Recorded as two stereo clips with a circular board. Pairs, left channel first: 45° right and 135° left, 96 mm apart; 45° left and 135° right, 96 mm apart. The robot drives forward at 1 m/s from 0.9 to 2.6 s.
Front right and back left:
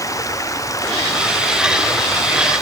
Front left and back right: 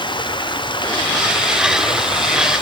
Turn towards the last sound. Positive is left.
turn(degrees=10)